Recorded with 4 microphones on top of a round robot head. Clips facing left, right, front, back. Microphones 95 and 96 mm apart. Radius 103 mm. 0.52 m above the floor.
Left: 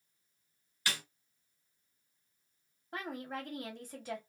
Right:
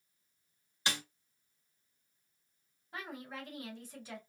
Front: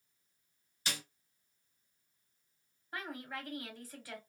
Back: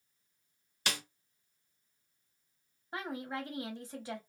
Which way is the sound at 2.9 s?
115° left.